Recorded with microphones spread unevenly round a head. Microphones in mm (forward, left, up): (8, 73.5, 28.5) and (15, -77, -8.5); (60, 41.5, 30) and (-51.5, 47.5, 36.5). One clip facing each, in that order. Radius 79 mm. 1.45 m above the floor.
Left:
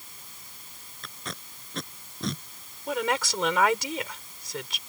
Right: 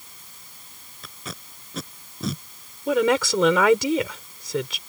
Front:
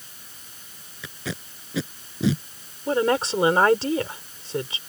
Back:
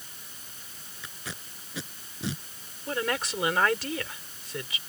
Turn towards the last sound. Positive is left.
turn(degrees=-75)